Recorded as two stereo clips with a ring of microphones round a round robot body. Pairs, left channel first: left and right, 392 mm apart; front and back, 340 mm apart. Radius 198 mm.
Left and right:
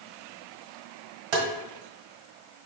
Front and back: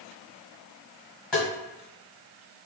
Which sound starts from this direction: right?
Tapping, at 1.3 s.